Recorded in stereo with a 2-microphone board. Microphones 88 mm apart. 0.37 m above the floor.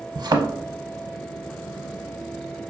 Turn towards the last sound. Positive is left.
turn(degrees=-55)  # may be behind; listen again after turning